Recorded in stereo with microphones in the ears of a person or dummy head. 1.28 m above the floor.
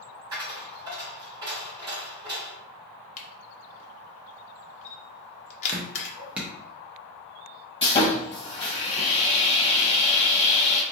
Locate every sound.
0.3 s a dropped coin: 15° right (ahead or behind), 1.2 m
3.2 s a camera shutter: 40° left (ahead or behind), 0.6 m
5.7 s dripping: 5° right (ahead or behind), 0.5 m
7.8 s sawing: 30° left (ahead or behind), 0.8 m